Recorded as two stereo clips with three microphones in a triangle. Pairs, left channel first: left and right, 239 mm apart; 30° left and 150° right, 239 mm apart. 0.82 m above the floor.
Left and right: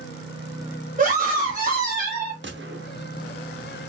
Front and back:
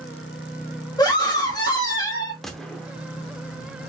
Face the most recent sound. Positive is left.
turn(degrees=-60)